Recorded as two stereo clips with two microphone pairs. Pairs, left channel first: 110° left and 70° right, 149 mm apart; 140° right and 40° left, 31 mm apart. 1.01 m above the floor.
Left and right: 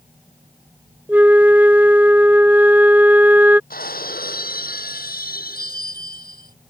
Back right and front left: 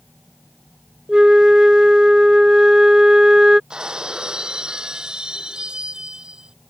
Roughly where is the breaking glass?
Left.